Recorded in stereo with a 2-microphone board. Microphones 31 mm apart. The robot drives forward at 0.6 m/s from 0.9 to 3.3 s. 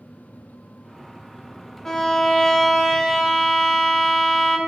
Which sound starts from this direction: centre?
A violin, at 1.9 s.